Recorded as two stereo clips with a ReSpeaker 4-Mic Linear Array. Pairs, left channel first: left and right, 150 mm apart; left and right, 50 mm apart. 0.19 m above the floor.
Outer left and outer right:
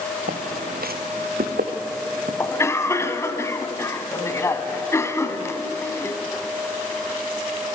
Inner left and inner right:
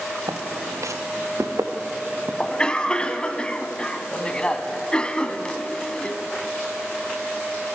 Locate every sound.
0.3 s footsteps: 85° right, 1.5 m
2.4 s a cough: 20° left (ahead or behind), 1.2 m